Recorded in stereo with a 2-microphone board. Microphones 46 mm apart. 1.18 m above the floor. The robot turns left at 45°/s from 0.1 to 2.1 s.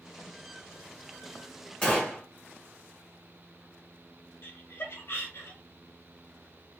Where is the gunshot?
30° left (ahead or behind), 1.5 m; by 2.2 s 40° left (ahead or behind), 1.5 m.